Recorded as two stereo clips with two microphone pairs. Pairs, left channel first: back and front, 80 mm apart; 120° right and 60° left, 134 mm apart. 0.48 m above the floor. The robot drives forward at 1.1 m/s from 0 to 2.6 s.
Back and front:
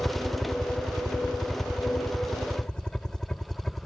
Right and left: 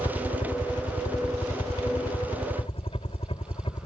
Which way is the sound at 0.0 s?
105° right.